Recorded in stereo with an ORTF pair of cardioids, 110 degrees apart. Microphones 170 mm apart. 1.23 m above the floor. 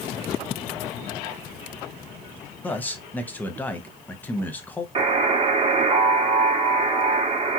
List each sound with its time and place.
2.6 s a man speaking: 10° left, 0.8 m
5.0 s a buzzer: 35° right, 0.9 m